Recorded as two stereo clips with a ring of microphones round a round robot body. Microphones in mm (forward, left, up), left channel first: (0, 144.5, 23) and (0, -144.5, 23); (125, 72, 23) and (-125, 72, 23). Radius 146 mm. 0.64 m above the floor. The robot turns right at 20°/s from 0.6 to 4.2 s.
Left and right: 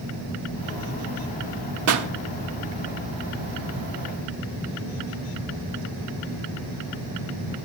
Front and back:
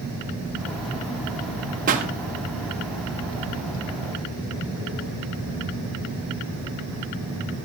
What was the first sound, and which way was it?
A pop, 120° right.